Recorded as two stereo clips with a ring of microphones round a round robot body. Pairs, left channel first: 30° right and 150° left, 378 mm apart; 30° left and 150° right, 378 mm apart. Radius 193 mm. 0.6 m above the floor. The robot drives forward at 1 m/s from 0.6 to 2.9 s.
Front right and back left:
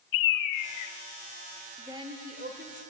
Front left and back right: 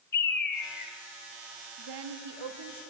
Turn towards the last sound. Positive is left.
turn(degrees=-150)